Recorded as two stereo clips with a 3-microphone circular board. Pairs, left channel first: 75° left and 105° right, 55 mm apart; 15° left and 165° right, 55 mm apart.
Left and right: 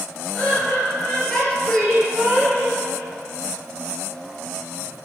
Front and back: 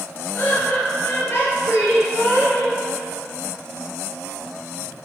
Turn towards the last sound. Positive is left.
turn(degrees=-20)